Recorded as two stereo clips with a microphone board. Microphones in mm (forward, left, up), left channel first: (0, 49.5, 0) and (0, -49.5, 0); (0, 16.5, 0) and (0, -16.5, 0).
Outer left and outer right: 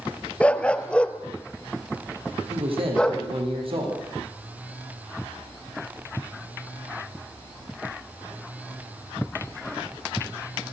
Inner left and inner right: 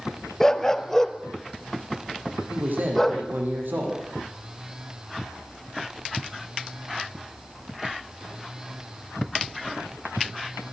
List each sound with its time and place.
0.4 s a dog barking: 10° left (ahead or behind), 1.2 m
2.5 s a man speaking: 65° right (ahead or behind), 8.5 m